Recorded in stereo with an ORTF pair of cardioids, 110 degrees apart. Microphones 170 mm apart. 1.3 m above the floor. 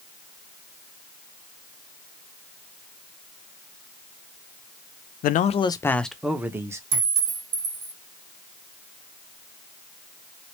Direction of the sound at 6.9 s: 70° right.